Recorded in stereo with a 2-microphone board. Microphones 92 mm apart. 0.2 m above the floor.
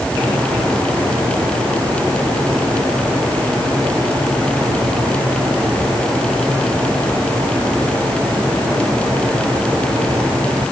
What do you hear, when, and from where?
Only background noise.